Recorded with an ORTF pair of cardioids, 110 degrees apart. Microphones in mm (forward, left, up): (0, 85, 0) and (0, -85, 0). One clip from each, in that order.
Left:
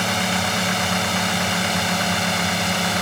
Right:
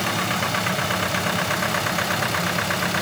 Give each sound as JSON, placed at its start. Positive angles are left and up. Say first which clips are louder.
{"t": 0.0, "sound": "a drone", "louder": "left 2 dB", "azimuth_deg": 65}